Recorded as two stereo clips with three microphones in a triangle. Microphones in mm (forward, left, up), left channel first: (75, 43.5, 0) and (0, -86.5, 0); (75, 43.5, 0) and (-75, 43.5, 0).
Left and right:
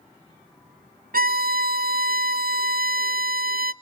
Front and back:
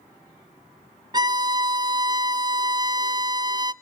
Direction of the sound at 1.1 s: 120° right.